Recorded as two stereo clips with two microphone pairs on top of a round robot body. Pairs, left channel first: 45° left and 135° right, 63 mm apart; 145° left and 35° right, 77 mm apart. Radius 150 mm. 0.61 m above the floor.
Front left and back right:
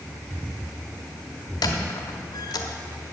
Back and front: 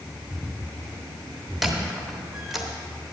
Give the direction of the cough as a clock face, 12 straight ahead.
No cough in this recording.